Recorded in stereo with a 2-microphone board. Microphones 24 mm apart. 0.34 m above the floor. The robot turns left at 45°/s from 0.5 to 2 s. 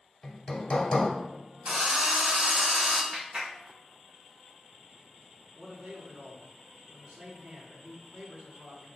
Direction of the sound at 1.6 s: 50° right (ahead or behind).